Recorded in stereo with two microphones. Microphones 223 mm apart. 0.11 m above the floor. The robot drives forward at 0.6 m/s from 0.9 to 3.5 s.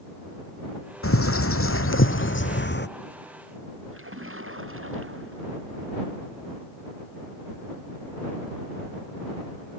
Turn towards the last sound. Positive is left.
turn(degrees=-70)  # may be behind; listen again after turning